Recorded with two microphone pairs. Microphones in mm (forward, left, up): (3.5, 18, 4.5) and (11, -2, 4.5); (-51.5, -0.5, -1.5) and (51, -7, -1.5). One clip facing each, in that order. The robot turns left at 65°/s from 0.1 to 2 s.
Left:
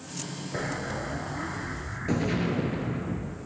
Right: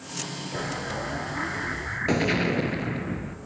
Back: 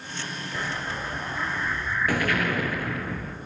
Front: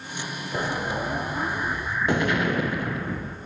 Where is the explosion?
30° left, 0.9 m; by 3.4 s 65° right, 0.9 m.